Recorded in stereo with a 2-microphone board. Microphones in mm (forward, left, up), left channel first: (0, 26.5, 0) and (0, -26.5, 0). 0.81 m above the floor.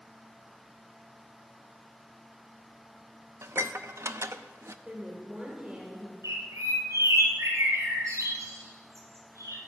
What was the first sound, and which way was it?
Dishes clattering, 60° right (ahead or behind).